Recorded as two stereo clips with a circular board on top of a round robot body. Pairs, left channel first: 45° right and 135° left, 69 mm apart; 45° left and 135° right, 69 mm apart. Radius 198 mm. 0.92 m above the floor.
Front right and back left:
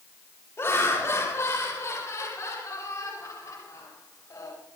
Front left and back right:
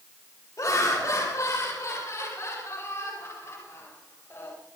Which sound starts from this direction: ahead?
Laughter, at 0.6 s.